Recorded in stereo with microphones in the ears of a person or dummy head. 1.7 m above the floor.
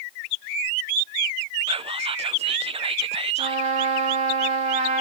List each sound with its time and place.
1.7 s whispering: 25° right (ahead or behind), 0.6 m
3.4 s a trumpet: 35° right (ahead or behind), 1.6 m